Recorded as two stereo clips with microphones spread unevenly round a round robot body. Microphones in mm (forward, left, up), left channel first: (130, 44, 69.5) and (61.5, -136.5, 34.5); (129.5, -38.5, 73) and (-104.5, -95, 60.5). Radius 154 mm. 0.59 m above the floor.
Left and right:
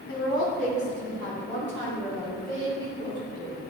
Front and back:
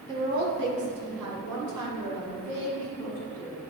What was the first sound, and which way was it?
A woman speaking, 125° left.